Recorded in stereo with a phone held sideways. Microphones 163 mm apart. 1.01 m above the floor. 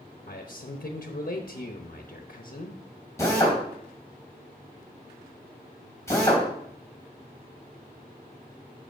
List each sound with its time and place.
0.3 s a man speaking: 75° left (ahead or behind), 0.9 m
3.2 s a drill: 15° left (ahead or behind), 3 m